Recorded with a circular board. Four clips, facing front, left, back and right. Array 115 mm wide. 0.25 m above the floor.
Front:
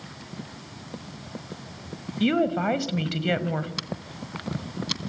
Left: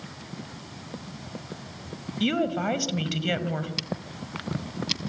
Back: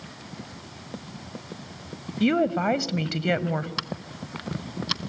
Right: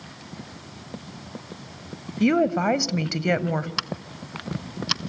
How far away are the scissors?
About 0.6 m.